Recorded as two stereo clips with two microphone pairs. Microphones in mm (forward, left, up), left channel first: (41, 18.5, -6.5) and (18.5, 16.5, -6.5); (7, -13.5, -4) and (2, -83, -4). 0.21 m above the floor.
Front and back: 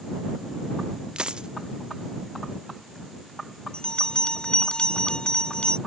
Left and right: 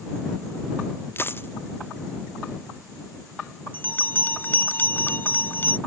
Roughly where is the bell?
Ahead left.